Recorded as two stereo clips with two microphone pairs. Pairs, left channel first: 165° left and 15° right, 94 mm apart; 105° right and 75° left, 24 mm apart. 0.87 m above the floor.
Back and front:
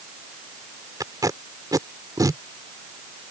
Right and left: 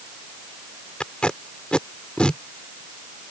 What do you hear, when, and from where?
1.0 s tape being pulled: 65° right